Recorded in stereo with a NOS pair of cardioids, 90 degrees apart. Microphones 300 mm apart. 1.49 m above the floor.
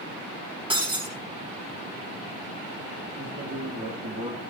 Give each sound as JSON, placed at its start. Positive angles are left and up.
{"t": 0.7, "sound": "breaking glass", "azimuth_deg": -15, "distance_m": 5.5}
{"t": 3.2, "sound": "a man speaking", "azimuth_deg": -35, "distance_m": 3.5}